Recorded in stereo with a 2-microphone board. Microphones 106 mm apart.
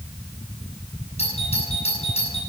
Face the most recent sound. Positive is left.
turn(degrees=80)